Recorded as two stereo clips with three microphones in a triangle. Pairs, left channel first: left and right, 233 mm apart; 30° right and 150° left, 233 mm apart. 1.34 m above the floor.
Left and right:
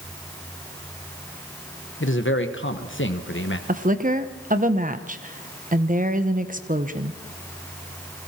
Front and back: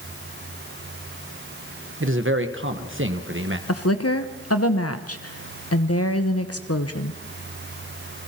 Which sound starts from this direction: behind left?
A man speaking, at 2.0 s.